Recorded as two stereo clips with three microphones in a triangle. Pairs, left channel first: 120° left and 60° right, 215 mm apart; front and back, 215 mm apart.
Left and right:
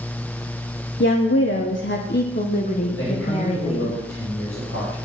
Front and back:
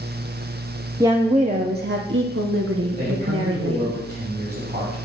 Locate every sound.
1.0 s a woman speaking: 105° left, 0.8 m; by 4.0 s 175° right, 2 m
3.0 s a man speaking: 140° left, 5.5 m